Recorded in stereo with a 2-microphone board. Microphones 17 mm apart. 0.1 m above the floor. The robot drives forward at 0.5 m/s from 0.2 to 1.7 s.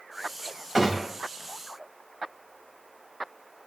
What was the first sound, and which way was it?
A gunshot, 10° right (ahead or behind).